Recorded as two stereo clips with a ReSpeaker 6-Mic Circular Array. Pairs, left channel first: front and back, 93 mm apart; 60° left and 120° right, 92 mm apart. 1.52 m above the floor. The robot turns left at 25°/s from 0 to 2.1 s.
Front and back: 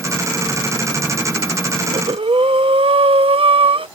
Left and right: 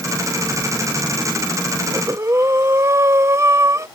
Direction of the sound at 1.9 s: 170° right.